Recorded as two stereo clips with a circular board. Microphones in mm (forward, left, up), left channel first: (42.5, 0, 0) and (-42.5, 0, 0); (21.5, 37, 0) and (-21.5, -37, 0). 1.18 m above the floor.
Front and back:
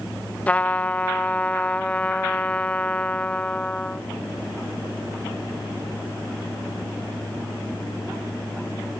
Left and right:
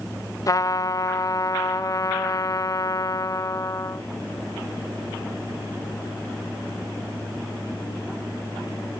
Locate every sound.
0.5 s a trumpet: 65° left, 0.6 m